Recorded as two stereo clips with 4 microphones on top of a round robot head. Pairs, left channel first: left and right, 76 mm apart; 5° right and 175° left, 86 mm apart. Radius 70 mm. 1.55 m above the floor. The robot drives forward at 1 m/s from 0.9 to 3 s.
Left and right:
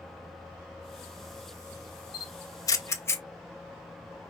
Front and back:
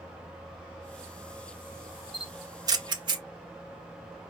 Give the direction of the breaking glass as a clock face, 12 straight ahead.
I don't hear breaking glass.